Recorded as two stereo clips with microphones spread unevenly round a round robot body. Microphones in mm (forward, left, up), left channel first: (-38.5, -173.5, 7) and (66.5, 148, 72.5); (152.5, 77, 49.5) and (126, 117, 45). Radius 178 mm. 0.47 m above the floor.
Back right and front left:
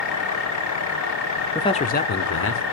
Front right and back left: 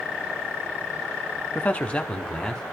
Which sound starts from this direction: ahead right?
A man speaking, at 1.6 s.